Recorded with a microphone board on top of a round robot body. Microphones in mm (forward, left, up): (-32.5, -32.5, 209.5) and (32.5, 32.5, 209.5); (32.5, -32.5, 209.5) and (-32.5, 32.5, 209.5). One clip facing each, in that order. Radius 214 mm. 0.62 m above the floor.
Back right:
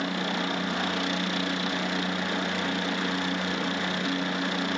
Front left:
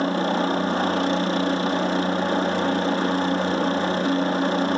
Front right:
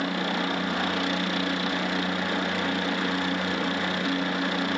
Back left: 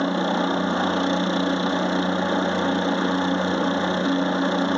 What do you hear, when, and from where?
0.0 s a helicopter: 85° left